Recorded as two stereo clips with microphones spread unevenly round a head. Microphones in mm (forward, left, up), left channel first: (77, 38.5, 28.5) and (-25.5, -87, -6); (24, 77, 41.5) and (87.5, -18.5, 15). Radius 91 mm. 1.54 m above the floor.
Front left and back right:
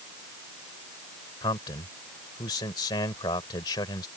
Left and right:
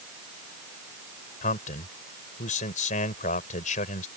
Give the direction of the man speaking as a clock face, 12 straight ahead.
8 o'clock.